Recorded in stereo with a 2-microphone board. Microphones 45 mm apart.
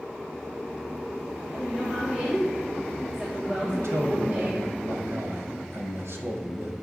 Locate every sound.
1.5 s a woman speaking: 20° right (ahead or behind), 2.5 m
3.6 s a man speaking: 75° right (ahead or behind), 2.5 m